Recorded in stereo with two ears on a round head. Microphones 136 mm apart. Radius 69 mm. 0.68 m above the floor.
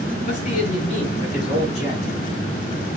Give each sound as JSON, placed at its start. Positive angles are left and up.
{"t": 0.3, "sound": "a man speaking", "side_deg": 50, "distance_m": 8.0}